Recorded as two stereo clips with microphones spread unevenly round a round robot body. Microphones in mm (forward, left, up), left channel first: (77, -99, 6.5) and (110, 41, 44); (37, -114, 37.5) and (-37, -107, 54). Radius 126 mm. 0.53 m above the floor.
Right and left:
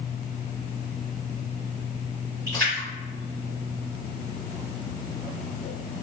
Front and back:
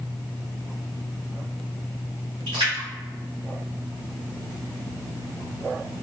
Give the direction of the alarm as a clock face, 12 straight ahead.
I don't hear an alarm.